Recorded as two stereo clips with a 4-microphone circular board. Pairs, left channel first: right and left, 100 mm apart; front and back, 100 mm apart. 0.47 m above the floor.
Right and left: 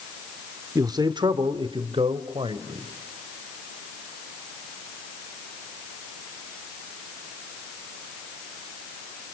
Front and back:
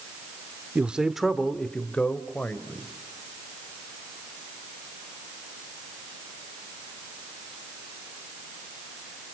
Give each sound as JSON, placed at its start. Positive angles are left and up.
{"t": 0.8, "sound": "a man speaking", "azimuth_deg": 110, "distance_m": 1.0}